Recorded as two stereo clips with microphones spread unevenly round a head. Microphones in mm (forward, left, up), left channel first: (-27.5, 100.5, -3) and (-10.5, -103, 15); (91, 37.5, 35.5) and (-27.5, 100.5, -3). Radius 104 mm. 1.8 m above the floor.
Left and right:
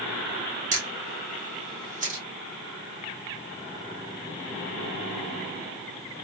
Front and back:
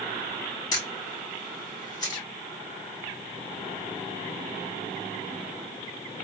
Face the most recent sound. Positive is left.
turn(degrees=-55)